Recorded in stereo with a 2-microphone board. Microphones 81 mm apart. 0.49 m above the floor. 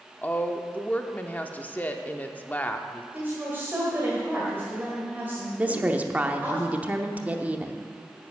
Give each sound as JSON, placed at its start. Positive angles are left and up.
{"t": 0.2, "sound": "a woman speaking", "side_deg": 20, "distance_m": 0.7}
{"t": 3.1, "sound": "a woman speaking", "side_deg": -25, "distance_m": 1.9}
{"t": 5.6, "sound": "a woman speaking", "side_deg": -20, "distance_m": 0.8}